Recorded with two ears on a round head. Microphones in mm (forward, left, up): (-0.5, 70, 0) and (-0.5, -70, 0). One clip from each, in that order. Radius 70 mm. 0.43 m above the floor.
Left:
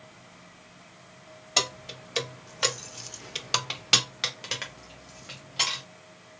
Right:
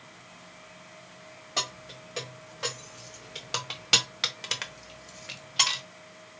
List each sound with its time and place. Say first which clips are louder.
1.6 s keys jangling: left 5 dB; 60° left (ahead or behind), 1.2 m; by 5.8 s 40° right (ahead or behind), 1.3 m